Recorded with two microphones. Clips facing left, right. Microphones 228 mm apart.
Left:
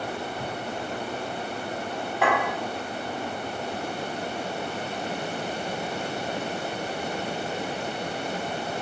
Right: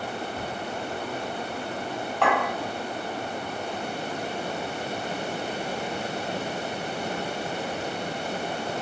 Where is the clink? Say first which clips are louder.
Even; 5° left (ahead or behind), 1.2 m.